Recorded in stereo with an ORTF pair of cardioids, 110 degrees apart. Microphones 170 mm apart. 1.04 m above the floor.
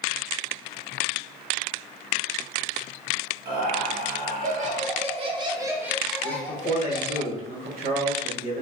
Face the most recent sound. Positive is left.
turn(degrees=-70)